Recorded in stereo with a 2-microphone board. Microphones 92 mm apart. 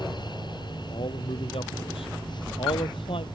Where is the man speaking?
75° left (ahead or behind); by 3.3 s 70° left (ahead or behind).